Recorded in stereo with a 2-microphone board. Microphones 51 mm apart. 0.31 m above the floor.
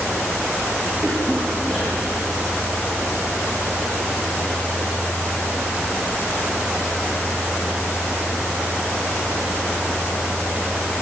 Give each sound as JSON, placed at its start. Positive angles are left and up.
{"t": 1.0, "sound": "a cough", "side_deg": 15, "distance_m": 6.0}